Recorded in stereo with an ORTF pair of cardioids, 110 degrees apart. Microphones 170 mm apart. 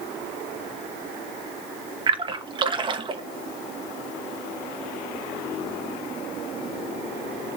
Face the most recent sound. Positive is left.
turn(degrees=-25)